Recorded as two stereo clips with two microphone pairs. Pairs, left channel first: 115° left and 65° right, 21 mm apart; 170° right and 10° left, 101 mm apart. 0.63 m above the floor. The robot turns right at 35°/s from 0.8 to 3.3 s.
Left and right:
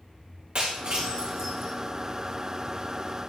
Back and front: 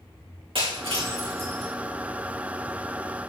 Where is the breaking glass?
20° right, 3 m; by 1.7 s 15° left, 3 m.